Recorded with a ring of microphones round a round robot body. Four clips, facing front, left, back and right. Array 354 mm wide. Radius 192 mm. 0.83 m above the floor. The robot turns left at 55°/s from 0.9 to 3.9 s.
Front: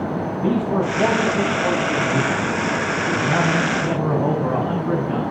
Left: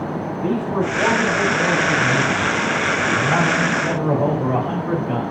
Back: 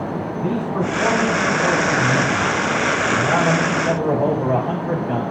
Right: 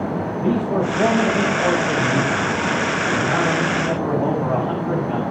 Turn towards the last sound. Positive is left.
turn(degrees=145)